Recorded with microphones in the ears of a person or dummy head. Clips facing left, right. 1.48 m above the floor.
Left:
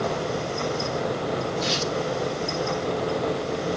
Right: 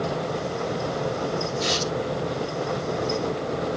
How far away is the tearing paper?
About 2.5 m.